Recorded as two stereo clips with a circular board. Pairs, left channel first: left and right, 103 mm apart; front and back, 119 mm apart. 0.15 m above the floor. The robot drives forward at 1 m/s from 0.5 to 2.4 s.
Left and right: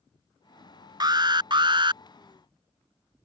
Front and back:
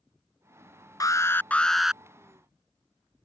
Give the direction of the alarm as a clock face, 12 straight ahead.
2 o'clock.